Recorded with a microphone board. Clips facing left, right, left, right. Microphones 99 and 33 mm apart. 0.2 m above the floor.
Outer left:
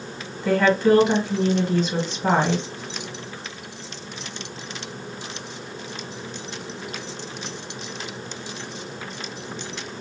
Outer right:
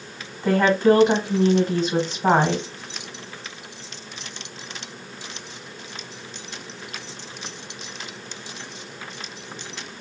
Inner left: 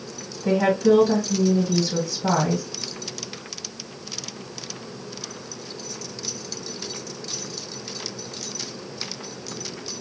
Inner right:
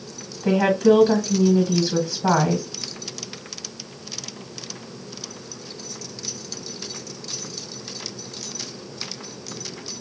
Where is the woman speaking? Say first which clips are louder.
Outer right 1 dB, inner right 2 dB; 20° right (ahead or behind), 1.4 m.